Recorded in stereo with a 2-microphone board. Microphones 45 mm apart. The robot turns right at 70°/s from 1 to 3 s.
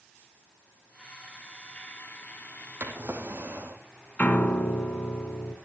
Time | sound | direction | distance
2.8 | a drawer | 65° right (ahead or behind) | 3 m
4.2 | a piano | 40° left (ahead or behind) | 1.5 m